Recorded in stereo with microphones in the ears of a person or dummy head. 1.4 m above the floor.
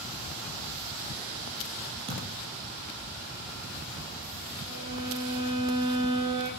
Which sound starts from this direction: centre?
A violin, at 4.7 s.